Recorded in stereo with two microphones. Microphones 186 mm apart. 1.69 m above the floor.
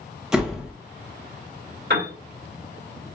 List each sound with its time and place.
0.3 s a door slam: 5° right (ahead or behind), 0.8 m
1.9 s a piano: 65° right (ahead or behind), 1.8 m